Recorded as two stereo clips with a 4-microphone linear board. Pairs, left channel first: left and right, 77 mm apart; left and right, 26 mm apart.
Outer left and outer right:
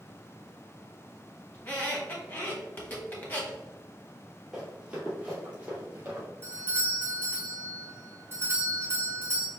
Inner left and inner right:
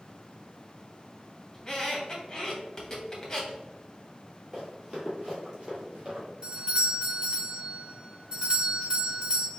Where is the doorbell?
30° right (ahead or behind), 1.4 m.